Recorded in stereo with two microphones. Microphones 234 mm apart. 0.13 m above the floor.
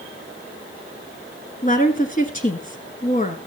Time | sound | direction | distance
1.6 | a woman speaking | 35° left (ahead or behind) | 1.6 m